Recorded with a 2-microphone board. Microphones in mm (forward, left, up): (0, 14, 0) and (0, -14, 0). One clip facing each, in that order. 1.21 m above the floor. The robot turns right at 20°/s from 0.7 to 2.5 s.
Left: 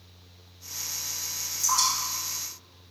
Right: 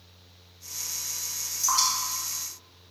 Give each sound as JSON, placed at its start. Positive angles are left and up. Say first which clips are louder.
{"t": 1.6, "sound": "dripping", "louder": "even", "side_deg": -45, "distance_m": 1.2}